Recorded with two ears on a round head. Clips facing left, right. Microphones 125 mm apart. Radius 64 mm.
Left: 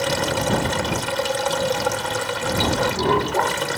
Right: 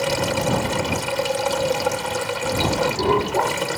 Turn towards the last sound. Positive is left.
turn(degrees=-5)  # may be behind; listen again after turning